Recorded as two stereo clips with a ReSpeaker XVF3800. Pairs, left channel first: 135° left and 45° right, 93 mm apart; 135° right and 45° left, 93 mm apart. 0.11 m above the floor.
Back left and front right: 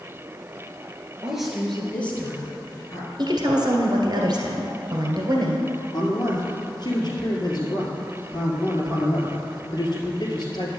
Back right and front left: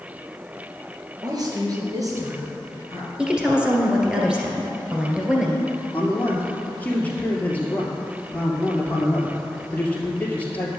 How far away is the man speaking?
About 2 m.